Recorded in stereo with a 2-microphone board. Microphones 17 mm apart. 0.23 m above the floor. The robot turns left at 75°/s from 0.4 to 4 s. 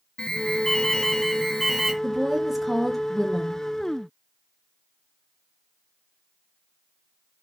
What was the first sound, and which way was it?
An alarm, 105° left.